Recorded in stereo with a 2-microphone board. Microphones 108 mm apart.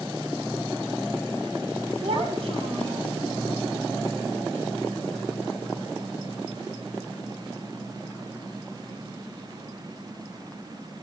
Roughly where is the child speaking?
Right.